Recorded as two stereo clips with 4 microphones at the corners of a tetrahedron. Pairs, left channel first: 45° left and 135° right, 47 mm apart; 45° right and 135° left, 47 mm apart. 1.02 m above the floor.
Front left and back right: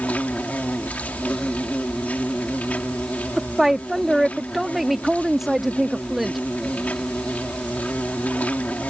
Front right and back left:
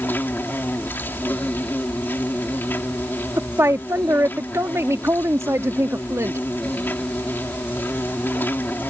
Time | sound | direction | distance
0.0 | an insect | 10° right | ?
3.4 | a woman speaking | 140° left | ?